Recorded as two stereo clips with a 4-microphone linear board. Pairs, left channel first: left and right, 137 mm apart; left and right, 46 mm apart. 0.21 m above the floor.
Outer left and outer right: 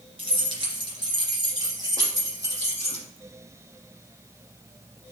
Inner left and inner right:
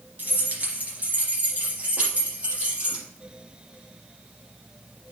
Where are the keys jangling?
40° right (ahead or behind), 2.5 m; by 3.0 s 25° right (ahead or behind), 4.5 m.